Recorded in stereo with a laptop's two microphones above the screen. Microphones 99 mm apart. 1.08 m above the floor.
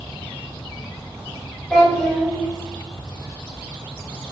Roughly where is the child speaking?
Centre.